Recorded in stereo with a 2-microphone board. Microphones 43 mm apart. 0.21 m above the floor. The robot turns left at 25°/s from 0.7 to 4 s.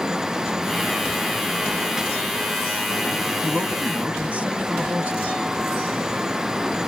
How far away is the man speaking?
About 1.8 m.